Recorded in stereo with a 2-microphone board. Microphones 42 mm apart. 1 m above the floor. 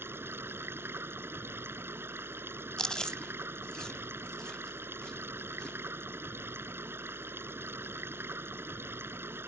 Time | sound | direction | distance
0.0 | running water | 65° right (ahead or behind) | ?
2.8 | chewing | 15° left (ahead or behind) | ?